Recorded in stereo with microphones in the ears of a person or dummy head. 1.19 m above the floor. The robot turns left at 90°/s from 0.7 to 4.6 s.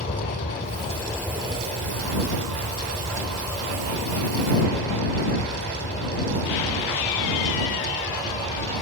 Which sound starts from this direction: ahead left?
An aircraft, at 0.0 s.